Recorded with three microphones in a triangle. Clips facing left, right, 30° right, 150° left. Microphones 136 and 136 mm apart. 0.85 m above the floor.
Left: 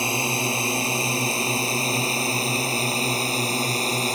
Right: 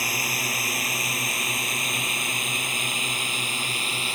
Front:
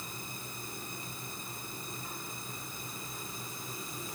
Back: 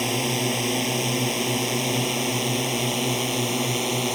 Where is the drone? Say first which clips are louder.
Left 6 dB, back 21 dB; 155° left; by 4.2 s 140° left.